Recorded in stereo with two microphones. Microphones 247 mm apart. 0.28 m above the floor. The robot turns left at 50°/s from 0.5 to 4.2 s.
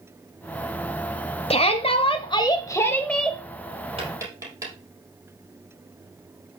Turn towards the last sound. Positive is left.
turn(degrees=-15)  # may be behind; listen again after turning